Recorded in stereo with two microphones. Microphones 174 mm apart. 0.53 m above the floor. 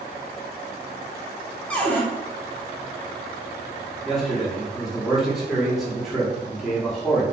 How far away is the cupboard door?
About 0.6 m.